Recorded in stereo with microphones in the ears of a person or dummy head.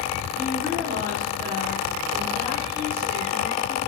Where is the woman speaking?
30° right (ahead or behind), 4 m.